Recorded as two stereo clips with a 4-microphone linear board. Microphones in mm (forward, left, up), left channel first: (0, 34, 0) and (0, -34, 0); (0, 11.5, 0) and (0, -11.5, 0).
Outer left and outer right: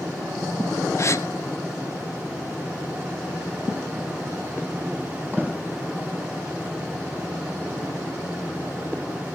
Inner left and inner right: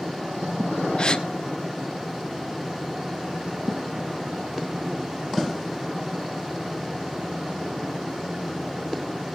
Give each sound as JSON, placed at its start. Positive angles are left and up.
{"t": 1.0, "sound": "a gasp", "side_deg": 45, "distance_m": 1.2}